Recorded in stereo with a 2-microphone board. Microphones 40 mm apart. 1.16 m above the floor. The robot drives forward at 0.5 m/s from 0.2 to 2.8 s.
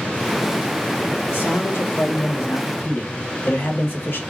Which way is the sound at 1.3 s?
75° left (ahead or behind).